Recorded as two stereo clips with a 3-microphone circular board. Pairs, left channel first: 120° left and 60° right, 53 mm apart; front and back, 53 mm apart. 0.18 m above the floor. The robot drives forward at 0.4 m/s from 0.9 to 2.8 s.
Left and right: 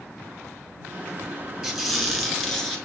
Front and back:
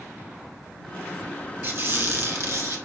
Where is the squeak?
145° right, 0.9 m; by 2.8 s 155° right, 1.2 m.